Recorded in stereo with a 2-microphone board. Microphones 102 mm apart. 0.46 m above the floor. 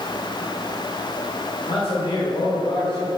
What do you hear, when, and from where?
1.7 s a man speaking: 55° left (ahead or behind), 2 m